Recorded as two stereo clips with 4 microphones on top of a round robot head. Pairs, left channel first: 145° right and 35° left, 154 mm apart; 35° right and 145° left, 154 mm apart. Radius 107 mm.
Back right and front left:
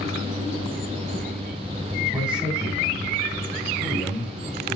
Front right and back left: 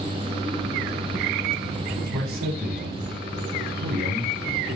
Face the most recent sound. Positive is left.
turn(degrees=130)